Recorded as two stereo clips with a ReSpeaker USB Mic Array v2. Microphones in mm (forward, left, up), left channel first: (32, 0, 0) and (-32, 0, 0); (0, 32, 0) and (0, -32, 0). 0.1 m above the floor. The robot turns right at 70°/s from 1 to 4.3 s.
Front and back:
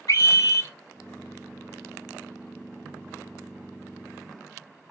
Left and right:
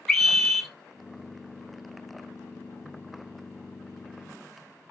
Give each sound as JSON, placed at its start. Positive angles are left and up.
{"t": 0.1, "sound": "a scream", "azimuth_deg": 5, "distance_m": 2.5}